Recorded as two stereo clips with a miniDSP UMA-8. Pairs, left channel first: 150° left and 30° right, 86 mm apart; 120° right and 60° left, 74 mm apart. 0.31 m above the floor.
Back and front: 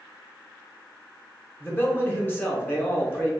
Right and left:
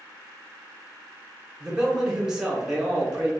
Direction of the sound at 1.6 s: 130° left.